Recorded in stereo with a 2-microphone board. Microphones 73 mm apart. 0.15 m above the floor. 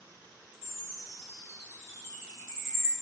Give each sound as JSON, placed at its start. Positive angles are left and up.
{"t": 0.5, "sound": "a chime", "side_deg": 35, "distance_m": 1.0}